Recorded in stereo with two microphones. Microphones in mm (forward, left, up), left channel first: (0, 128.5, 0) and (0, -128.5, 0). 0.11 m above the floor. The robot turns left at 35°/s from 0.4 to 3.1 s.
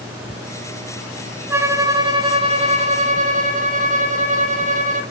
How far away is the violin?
About 1.3 m.